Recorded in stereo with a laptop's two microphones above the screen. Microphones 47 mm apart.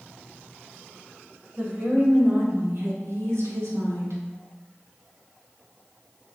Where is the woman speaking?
40° right (ahead or behind), 2.5 m; by 4.2 s 80° right, 2.5 m.